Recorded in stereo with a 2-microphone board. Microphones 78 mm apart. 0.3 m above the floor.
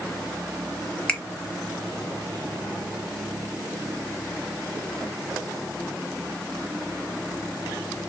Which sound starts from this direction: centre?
A finger snap, at 1.1 s.